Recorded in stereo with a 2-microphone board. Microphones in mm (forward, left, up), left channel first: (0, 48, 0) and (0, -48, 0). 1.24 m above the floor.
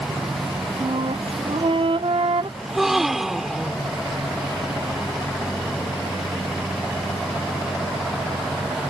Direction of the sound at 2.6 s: 5° right (ahead or behind).